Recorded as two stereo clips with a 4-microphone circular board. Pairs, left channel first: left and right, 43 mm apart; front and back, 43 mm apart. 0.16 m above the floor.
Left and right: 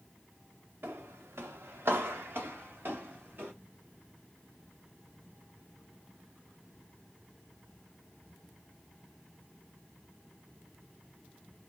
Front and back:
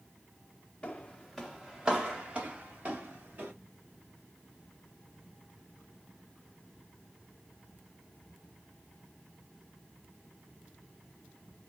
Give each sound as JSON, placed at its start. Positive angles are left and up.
{"t": 0.8, "sound": "footsteps", "azimuth_deg": -65, "distance_m": 0.7}